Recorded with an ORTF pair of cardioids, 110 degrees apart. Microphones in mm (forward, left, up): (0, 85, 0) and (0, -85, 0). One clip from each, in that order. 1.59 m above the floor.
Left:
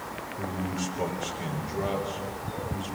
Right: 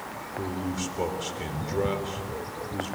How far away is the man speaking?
About 4.5 m.